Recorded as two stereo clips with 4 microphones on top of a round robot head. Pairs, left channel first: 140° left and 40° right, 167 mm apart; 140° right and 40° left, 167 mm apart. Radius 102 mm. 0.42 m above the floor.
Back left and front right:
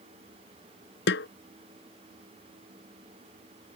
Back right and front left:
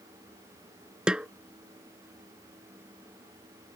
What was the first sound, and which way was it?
A snare drum, 125° left.